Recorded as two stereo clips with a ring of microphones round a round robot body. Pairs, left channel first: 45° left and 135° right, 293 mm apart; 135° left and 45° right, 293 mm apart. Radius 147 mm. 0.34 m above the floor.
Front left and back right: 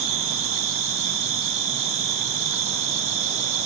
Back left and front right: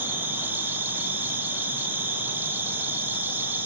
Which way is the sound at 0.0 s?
125° right.